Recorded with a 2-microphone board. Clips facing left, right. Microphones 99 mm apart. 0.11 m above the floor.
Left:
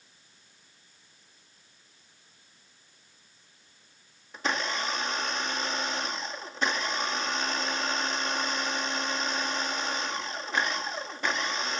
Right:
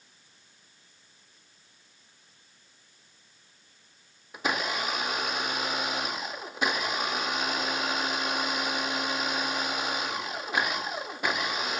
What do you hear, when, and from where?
4.3 s a blender: 10° right (ahead or behind), 0.7 m